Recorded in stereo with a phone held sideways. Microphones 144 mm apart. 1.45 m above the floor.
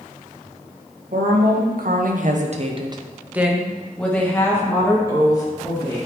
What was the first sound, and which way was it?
A woman speaking, 80° right.